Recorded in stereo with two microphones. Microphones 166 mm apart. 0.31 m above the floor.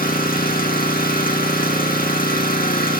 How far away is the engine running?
About 2 m.